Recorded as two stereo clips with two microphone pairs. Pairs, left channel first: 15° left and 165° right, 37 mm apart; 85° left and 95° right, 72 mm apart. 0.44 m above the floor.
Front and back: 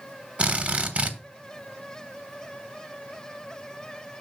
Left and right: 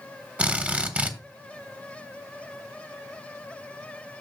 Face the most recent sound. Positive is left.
turn(degrees=-145)